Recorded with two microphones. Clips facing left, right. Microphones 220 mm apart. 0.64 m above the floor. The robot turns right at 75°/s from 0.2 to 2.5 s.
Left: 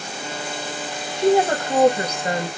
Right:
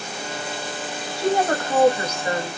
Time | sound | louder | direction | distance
1.2 | a woman speaking | left 4 dB | 5° right | 1.3 m